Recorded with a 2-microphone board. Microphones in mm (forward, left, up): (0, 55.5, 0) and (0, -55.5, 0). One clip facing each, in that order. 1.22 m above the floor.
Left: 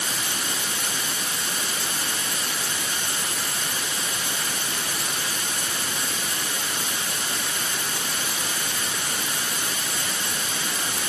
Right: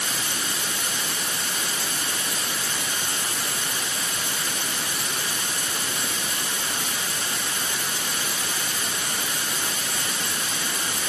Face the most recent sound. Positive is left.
No sound to turn to.